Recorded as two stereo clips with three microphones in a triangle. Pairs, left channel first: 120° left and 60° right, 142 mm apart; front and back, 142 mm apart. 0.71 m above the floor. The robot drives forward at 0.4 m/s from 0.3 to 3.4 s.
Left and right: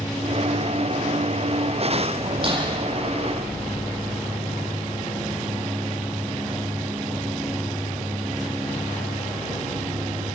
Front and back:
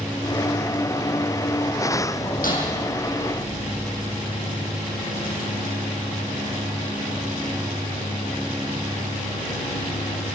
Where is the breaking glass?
10° right, 8 m.